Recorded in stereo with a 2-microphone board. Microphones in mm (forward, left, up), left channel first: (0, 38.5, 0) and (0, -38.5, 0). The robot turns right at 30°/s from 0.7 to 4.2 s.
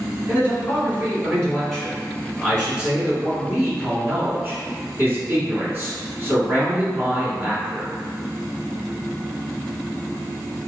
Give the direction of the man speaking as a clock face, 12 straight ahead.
8 o'clock.